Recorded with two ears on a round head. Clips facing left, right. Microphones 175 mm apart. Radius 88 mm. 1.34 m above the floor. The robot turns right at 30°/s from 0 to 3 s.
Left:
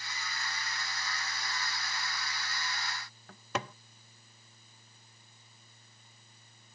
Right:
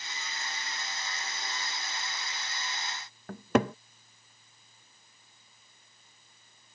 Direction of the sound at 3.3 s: 45° right (ahead or behind).